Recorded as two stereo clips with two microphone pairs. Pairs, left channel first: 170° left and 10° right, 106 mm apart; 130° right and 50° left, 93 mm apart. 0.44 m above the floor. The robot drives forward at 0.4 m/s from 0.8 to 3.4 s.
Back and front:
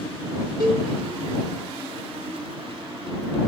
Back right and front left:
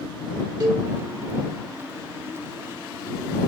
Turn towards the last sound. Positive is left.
turn(degrees=65)